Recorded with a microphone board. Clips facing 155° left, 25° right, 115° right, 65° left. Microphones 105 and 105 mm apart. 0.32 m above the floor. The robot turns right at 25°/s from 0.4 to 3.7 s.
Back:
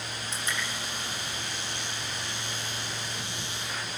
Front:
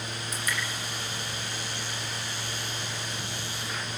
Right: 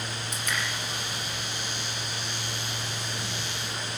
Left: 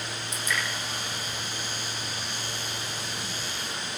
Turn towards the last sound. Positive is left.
turn(degrees=-60)